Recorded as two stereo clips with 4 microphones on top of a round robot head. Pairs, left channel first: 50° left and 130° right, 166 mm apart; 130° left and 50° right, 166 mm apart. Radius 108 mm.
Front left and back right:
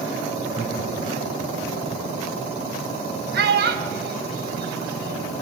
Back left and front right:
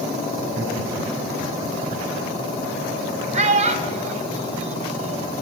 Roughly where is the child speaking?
Right.